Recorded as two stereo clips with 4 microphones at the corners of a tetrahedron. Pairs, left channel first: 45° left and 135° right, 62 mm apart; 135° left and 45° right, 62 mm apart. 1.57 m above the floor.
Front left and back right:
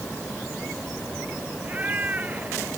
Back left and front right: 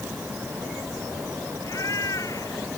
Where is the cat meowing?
165° left; by 2.7 s 160° left.